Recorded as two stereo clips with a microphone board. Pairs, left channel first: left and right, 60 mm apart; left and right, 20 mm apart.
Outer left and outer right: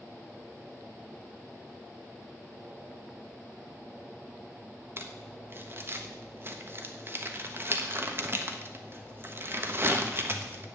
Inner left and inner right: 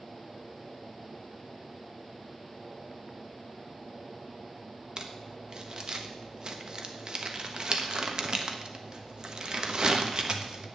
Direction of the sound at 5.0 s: 40° right (ahead or behind).